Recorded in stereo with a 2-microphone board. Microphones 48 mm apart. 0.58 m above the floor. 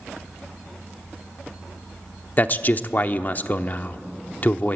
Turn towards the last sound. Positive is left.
turn(degrees=40)  # may be behind; listen again after turning